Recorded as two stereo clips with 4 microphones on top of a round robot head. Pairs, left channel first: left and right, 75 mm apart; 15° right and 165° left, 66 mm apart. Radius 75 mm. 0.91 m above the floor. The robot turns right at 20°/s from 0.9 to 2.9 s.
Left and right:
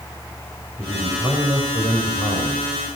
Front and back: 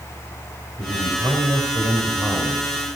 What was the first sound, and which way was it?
A man speaking, 160° right.